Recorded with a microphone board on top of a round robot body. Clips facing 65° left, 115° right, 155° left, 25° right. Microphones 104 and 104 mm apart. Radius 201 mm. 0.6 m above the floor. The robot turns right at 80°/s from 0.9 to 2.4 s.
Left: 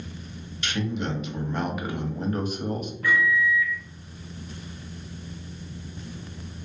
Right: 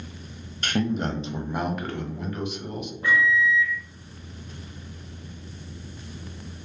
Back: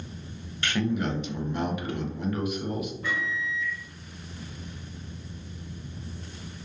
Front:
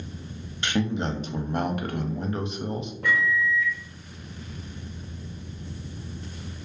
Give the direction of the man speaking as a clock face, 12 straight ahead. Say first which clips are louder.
Right 3 dB, front 1 dB; 3 o'clock.